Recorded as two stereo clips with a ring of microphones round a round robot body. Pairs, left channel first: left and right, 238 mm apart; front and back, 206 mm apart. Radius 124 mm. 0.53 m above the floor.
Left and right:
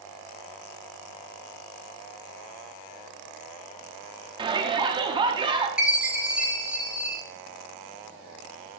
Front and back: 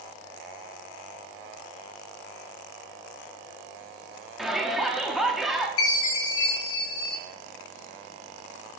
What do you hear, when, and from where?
4.4 s a shout: 95° right, 0.9 m
5.8 s a chime: 5° right, 2.5 m